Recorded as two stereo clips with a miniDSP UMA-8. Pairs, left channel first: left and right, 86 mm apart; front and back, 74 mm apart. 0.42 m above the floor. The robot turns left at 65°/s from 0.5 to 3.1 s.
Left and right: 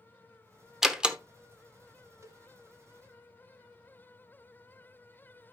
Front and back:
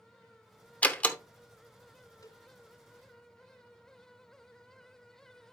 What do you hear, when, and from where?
0.8 s a door slam: 10° right, 0.7 m; by 1.2 s 35° right, 0.7 m
2.2 s a cowbell: 35° right, 1.0 m; by 2.4 s 45° right, 1.0 m